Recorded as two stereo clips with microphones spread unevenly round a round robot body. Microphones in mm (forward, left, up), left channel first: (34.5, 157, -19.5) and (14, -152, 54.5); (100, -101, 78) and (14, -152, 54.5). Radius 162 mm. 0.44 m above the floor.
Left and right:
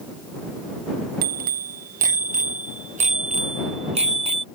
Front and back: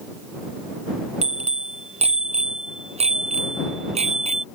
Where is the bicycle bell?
160° right; by 4.5 s 170° right.